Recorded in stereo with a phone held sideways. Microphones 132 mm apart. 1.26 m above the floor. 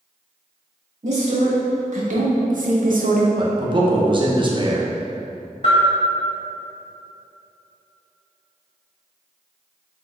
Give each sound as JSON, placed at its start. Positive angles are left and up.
{"t": 1.0, "sound": "a woman speaking", "side_deg": -55, "distance_m": 1.9}
{"t": 3.4, "sound": "a man speaking", "side_deg": -35, "distance_m": 0.7}
{"t": 5.6, "sound": "a bell", "side_deg": 50, "distance_m": 1.6}